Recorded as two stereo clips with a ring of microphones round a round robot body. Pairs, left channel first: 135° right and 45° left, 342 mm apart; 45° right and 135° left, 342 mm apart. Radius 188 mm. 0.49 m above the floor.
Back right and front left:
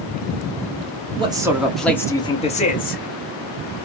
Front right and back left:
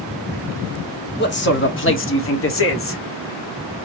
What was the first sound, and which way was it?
A man speaking, 20° right.